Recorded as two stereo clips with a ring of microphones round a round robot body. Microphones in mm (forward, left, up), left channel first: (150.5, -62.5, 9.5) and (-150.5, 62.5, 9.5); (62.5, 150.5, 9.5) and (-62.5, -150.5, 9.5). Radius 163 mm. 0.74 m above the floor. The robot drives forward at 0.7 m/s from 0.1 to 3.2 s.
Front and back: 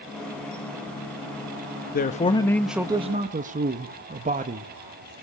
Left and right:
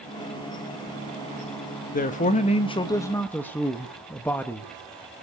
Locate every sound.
1.9 s a man speaking: 20° left, 1.1 m; by 4.7 s 145° left, 0.9 m